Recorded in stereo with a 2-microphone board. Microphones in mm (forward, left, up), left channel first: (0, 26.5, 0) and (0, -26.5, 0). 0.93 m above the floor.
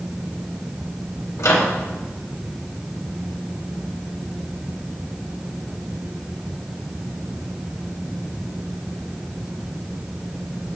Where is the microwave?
70° left (ahead or behind), 1.1 m.